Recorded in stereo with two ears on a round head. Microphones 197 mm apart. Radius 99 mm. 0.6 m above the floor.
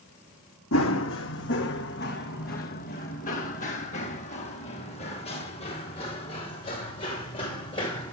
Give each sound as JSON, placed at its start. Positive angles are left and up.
{"t": 0.7, "sound": "running footsteps", "side_deg": 65, "distance_m": 1.6}